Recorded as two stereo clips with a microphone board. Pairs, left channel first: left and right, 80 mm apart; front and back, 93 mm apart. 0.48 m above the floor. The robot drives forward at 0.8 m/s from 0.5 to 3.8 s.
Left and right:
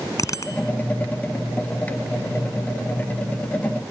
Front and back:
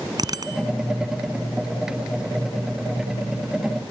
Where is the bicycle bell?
135° left.